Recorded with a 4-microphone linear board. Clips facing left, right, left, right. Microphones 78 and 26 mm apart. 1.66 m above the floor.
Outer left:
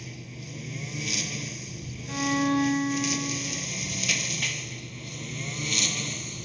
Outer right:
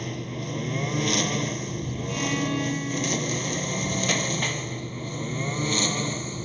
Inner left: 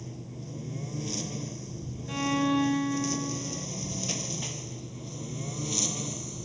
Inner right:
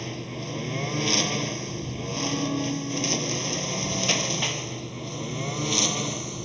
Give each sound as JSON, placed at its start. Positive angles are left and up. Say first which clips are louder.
{"t": 0.0, "sound": "a lawn mower", "louder": "outer right 10 dB, inner right 9 dB", "side_deg": -70}
{"t": 2.1, "sound": "a violin", "louder": "outer left 3 dB, inner left 2 dB", "side_deg": 40}